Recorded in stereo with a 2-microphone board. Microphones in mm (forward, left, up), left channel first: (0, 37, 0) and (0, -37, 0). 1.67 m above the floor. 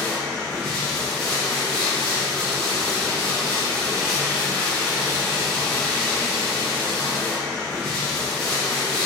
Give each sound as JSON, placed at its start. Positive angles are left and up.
{"t": 0.0, "sound": "running water", "side_deg": 10, "distance_m": 1.0}